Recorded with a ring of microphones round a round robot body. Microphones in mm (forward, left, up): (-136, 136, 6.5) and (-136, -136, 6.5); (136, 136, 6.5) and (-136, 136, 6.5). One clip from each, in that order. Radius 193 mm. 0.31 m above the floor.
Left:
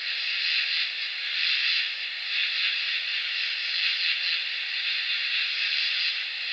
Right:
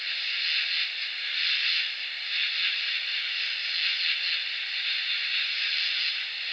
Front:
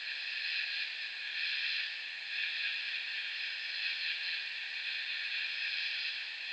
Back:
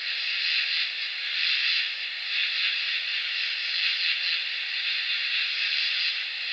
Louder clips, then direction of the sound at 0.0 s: Left 1 dB, back 10 dB; 175° left.